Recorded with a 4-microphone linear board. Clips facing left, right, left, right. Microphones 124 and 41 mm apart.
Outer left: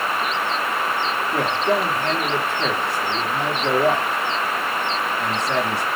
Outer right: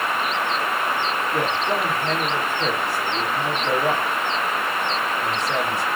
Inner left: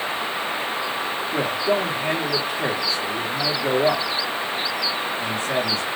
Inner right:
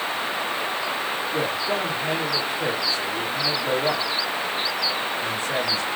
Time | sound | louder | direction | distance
1.3 | a man speaking | outer left 4 dB, inner left 5 dB | 70° left (ahead or behind) | 2 m